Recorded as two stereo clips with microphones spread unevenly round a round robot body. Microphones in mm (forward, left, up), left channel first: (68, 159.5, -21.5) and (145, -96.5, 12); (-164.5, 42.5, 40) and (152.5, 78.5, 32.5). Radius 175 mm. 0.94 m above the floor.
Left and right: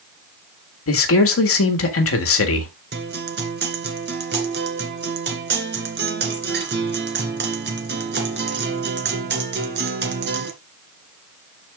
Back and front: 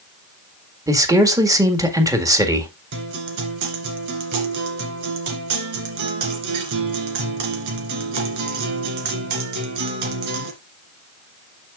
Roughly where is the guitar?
Ahead right.